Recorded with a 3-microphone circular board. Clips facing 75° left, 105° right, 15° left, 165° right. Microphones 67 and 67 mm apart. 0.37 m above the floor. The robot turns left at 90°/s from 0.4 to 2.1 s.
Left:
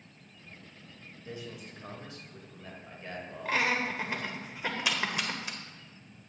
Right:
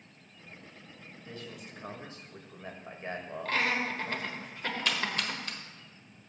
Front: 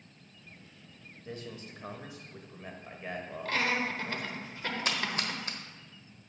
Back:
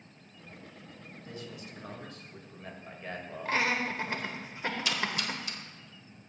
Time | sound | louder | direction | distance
1.2 | a man speaking | left 2 dB, front 2 dB | 15° left | 1.5 m
3.5 | laughter | left 1 dB, back 1 dB | 145° left | 1.1 m
4.8 | a splash | even, front 2 dB | straight ahead | 1.3 m